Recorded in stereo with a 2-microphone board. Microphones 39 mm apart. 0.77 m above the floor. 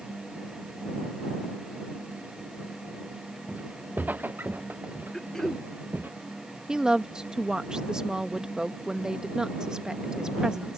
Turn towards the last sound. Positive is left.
turn(degrees=-20)  # may be behind; listen again after turning